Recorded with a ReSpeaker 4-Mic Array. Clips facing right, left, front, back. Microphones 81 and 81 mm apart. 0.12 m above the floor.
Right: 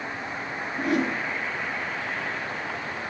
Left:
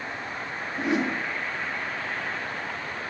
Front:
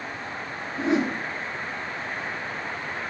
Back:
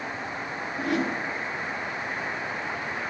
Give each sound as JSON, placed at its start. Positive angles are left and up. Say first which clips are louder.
{"t": 0.8, "sound": "a whoosh", "louder": "right 1 dB, front 4 dB", "azimuth_deg": 40, "distance_m": 1.6}